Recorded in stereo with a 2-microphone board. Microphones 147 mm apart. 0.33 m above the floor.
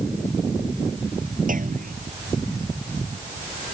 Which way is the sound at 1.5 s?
65° right (ahead or behind).